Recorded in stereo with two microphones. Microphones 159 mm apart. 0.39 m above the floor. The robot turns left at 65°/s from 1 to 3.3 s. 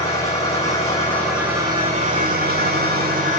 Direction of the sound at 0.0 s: 20° left.